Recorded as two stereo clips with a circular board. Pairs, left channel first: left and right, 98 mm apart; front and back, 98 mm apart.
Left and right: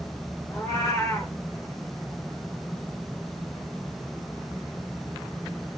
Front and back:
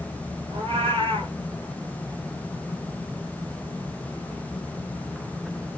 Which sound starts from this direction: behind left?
A cat meowing, at 0.5 s.